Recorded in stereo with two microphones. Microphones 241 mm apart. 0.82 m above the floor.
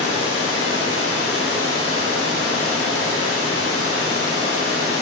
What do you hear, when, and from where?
0.0 s running water: 80° left, 4 m